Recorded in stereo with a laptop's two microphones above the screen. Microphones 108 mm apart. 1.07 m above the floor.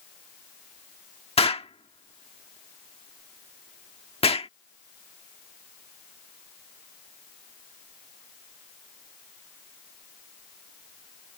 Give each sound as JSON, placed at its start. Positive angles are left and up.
{"t": 1.4, "sound": "an explosion", "side_deg": 60}